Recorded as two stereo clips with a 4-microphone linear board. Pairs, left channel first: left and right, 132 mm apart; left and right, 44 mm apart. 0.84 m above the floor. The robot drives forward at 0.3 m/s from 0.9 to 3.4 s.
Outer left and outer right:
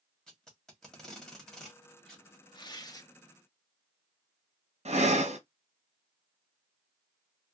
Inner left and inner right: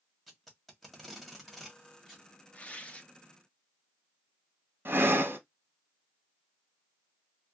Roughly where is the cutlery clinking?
No cutlery clinking in this recording.